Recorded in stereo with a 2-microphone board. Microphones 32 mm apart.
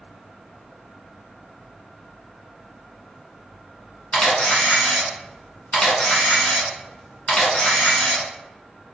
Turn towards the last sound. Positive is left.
turn(degrees=30)  # may be behind; listen again after turning